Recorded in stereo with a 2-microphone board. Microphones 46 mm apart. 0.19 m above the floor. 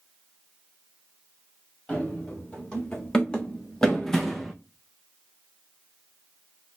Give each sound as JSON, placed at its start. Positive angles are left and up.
{"t": 1.9, "sound": "running footsteps", "side_deg": 20, "distance_m": 2.0}